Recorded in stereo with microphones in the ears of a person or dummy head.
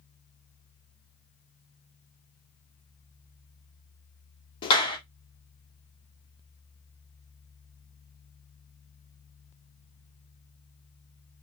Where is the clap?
20° left (ahead or behind), 1.1 m.